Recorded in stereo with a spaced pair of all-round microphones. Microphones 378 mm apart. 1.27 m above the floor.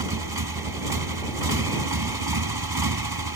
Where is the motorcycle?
70° right (ahead or behind).